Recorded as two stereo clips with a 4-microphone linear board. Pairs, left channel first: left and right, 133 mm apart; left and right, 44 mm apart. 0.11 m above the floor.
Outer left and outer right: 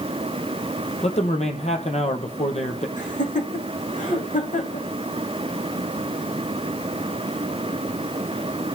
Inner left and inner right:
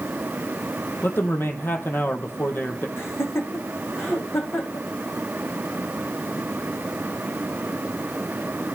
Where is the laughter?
70° left (ahead or behind), 6.5 m.